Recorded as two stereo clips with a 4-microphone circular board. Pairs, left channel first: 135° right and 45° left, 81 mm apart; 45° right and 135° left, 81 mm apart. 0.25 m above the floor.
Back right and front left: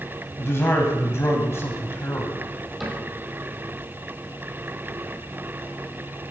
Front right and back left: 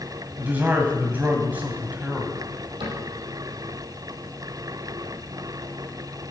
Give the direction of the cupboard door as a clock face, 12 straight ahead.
8 o'clock.